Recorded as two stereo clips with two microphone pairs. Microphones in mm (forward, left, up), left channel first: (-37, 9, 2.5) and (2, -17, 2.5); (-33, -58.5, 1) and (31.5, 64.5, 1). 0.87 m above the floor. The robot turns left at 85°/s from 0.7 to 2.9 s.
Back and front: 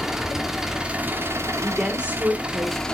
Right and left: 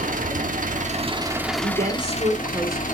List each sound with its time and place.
0.0 s an engine running: 45° left, 1.1 m; by 3.0 s 140° right, 1.1 m
1.6 s a woman speaking: 65° left, 1.7 m; by 2.9 s 40° right, 1.7 m